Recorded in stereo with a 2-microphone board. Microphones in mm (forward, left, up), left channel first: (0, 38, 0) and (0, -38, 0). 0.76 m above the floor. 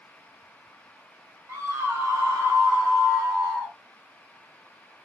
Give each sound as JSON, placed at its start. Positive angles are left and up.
{"t": 1.5, "sound": "a scream", "side_deg": -40, "distance_m": 1.1}